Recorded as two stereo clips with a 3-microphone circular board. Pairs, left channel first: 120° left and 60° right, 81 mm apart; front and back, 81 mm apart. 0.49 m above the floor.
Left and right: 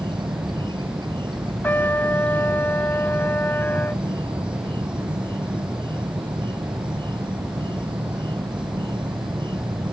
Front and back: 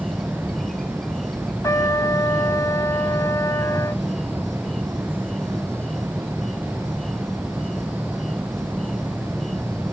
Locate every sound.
0.0 s an insect: 85° right
1.6 s a trumpet: 50° left